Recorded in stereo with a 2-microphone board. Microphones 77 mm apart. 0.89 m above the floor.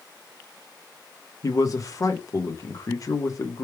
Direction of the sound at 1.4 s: 45° left (ahead or behind).